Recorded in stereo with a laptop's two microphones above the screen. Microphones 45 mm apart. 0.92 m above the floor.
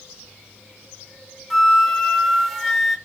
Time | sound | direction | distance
1.5 | a flute | 5° left (ahead or behind) | 0.8 m